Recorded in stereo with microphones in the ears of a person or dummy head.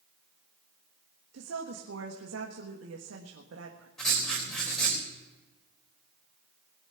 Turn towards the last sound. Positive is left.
turn(degrees=10)  # may be behind; listen again after turning